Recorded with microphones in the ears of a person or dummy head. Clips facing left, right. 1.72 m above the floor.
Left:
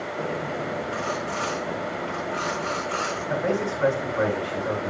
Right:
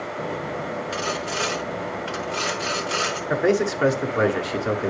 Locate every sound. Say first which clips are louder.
0.9 s sawing: right 1 dB; 50° right (ahead or behind), 0.8 m
3.3 s a man speaking: right 5 dB; 70° right (ahead or behind), 1.1 m